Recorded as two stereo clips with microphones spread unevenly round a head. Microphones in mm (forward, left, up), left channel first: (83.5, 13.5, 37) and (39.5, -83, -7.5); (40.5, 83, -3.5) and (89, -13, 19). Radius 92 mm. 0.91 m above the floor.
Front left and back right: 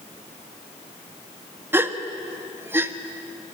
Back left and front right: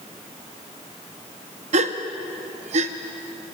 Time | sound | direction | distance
1.7 | a gasp | 50° right | 1.0 m